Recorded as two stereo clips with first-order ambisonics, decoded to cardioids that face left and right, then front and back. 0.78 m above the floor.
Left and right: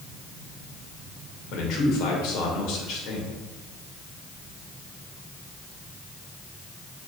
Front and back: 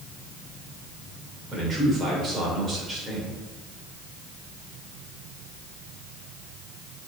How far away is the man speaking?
About 3 m.